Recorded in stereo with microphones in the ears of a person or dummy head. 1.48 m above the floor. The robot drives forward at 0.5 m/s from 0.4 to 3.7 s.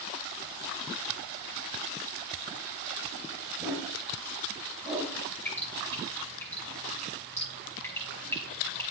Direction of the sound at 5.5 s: 10° left (ahead or behind).